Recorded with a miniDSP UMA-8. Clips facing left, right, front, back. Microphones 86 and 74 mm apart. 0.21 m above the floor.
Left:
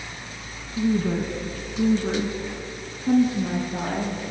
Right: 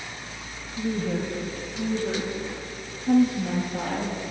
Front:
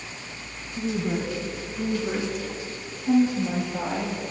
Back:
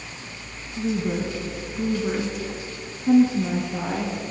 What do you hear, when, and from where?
0.8 s a woman speaking: 80° left, 1.6 m; by 4.2 s 145° left, 3 m